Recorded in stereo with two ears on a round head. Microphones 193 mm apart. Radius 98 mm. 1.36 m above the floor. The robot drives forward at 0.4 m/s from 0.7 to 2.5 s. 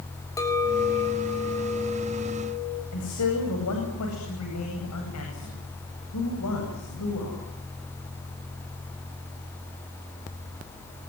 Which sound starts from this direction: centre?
A clink, at 0.4 s.